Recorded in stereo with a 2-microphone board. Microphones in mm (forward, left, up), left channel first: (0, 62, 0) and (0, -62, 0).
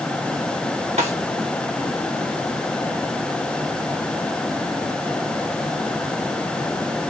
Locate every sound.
1.0 s a snare drum: 60° right (ahead or behind), 1.6 m